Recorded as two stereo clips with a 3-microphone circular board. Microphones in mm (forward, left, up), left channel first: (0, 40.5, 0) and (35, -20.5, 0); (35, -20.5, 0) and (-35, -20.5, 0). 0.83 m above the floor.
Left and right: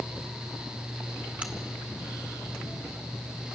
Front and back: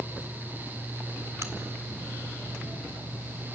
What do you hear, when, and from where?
1.4 s a crack: 135° right, 1.8 m